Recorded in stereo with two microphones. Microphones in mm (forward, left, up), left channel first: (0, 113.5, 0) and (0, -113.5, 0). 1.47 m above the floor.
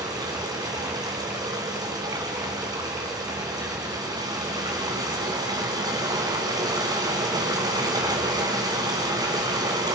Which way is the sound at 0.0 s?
15° right (ahead or behind).